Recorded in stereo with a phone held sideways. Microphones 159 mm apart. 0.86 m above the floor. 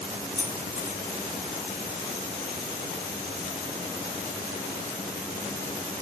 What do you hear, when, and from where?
0.3 s keys jangling: 15° right (ahead or behind), 4 m